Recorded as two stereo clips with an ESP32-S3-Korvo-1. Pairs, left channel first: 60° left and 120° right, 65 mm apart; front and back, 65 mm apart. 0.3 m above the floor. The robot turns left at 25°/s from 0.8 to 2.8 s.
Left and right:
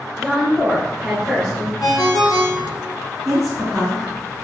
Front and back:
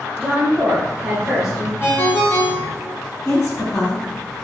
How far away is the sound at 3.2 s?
About 1.9 m.